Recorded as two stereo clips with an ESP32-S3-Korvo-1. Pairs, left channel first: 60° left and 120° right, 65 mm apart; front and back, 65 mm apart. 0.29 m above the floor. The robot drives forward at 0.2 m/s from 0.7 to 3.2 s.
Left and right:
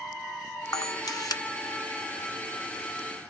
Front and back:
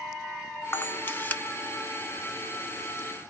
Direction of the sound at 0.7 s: 50° left.